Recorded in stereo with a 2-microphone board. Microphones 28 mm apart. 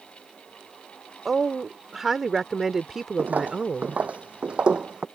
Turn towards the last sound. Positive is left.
turn(degrees=-35)  # may be behind; listen again after turning